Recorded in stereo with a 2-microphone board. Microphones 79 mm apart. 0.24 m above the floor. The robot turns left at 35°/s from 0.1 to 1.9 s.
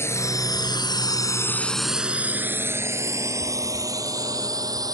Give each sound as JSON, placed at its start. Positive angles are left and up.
{"t": 0.0, "sound": "a drone", "side_deg": 30}